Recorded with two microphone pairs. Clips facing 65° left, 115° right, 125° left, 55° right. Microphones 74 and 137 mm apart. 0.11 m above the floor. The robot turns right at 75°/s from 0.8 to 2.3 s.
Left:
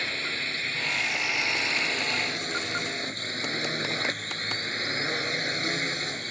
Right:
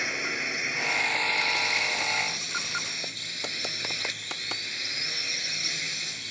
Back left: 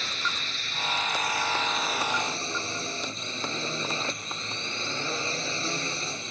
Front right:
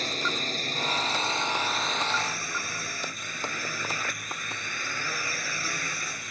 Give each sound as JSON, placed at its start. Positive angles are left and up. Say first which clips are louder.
{"t": 0.0, "sound": "a drone", "louder": "right 1 dB, front right 4 dB", "azimuth_deg": -45}